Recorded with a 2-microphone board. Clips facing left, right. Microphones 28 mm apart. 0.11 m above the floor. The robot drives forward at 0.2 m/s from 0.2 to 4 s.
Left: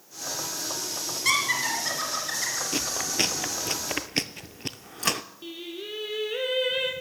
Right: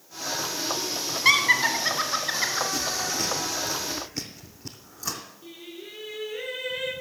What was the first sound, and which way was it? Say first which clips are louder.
Laughter: right 5 dB; 25° right (ahead or behind).